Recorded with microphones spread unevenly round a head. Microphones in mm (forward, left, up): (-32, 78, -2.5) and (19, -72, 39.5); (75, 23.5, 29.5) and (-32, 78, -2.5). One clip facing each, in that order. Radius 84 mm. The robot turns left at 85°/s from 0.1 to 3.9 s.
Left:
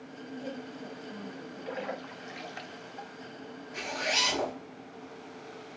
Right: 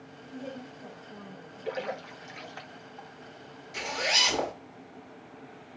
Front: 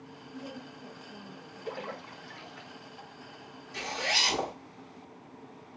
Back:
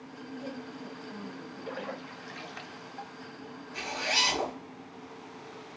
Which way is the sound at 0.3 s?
110° right.